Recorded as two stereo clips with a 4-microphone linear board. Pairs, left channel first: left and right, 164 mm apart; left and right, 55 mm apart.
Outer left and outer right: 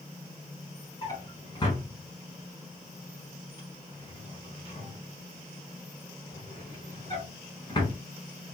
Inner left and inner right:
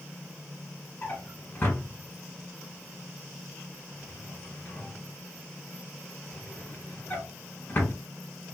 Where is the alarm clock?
No alarm clock in this recording.